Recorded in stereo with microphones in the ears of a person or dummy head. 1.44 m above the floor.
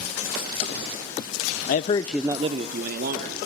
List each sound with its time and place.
1.7 s a man speaking: 55° left (ahead or behind), 0.7 m; by 3.4 s 65° right (ahead or behind), 1.8 m